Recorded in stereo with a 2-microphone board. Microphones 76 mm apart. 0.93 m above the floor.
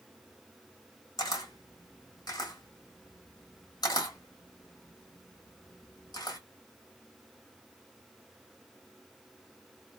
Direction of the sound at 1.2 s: 60° left (ahead or behind).